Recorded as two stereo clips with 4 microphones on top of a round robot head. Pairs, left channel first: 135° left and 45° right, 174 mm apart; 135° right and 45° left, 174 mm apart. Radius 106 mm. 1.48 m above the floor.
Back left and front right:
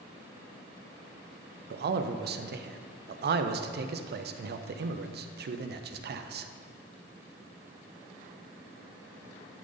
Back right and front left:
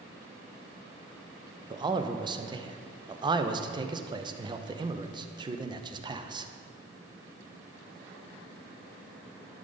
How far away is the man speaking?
About 0.6 m.